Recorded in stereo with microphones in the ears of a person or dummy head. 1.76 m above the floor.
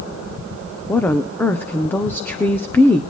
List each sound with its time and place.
0.9 s a woman speaking: 10° left (ahead or behind), 1.0 m